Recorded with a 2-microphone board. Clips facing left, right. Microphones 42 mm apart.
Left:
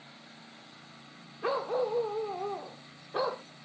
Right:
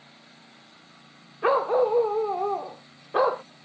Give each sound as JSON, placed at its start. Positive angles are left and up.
{"t": 1.4, "sound": "a dog barking", "side_deg": -40}